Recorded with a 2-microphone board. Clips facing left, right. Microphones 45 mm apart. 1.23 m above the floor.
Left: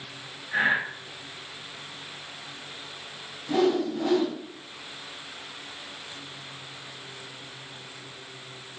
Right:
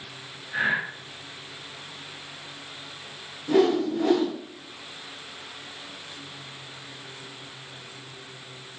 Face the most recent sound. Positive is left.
turn(degrees=-75)  # may be behind; listen again after turning